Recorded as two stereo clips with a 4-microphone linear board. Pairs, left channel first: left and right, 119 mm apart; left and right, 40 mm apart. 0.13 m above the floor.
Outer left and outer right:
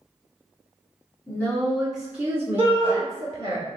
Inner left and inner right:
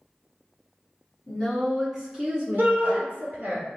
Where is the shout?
55° right (ahead or behind), 1.6 m.